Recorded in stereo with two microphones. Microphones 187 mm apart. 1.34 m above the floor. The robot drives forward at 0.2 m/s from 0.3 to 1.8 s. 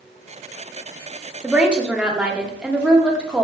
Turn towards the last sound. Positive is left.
turn(degrees=-5)  # may be behind; listen again after turning